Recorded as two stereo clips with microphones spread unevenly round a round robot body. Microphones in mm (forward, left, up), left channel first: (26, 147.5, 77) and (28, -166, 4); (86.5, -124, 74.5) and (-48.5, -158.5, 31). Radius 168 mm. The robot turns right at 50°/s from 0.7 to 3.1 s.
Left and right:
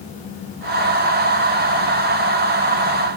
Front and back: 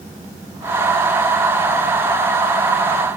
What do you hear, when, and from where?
Only background noise.